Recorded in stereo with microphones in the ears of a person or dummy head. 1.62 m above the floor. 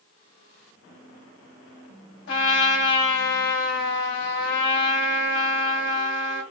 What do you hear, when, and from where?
2.3 s a trumpet: 60° left (ahead or behind), 3 m